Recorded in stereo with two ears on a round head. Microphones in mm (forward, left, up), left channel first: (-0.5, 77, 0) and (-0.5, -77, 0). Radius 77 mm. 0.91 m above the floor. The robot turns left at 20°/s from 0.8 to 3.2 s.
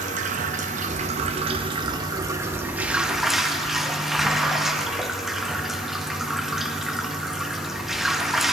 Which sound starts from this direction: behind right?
Running water, at 0.0 s.